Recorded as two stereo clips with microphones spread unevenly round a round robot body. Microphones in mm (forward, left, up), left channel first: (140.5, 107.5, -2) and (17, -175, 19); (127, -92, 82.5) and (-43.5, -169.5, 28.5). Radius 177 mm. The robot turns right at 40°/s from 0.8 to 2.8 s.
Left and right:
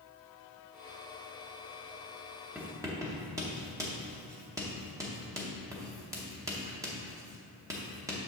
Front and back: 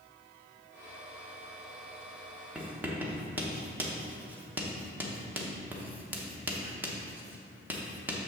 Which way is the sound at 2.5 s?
155° left.